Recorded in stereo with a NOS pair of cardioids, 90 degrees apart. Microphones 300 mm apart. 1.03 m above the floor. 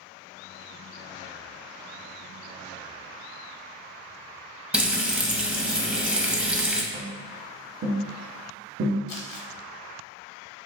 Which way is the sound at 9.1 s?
65° left.